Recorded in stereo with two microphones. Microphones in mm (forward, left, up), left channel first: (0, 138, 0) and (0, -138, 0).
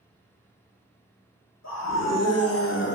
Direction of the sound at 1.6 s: 70° left (ahead or behind).